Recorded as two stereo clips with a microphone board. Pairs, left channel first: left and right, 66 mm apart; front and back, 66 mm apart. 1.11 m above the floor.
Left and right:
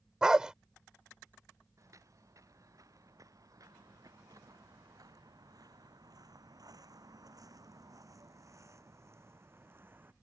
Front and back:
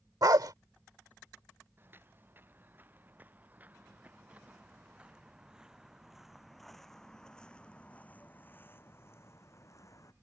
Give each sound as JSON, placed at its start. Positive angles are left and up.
{"t": 0.2, "sound": "a dog barking", "azimuth_deg": -165}
{"t": 1.8, "sound": "footsteps", "azimuth_deg": -125}